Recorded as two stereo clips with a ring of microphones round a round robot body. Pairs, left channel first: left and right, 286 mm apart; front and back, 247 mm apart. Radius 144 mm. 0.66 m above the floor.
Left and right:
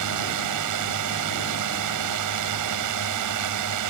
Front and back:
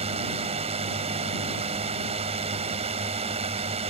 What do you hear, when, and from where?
0.0 s a drone: 110° right